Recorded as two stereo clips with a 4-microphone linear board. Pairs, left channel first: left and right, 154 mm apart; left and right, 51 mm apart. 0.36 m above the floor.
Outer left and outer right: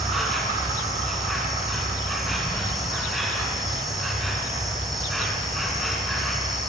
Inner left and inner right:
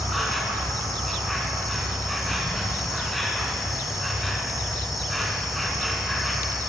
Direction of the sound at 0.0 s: Centre (ahead or behind).